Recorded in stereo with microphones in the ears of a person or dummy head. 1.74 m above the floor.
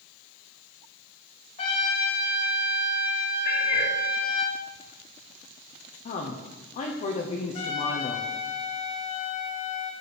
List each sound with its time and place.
1.6 s a trumpet: 30° left (ahead or behind), 1.7 m
3.5 s a cat meowing: 30° left (ahead or behind), 1.3 m
6.0 s a woman speaking: 35° left (ahead or behind), 0.9 m
7.5 s a trumpet: 30° left (ahead or behind), 1.9 m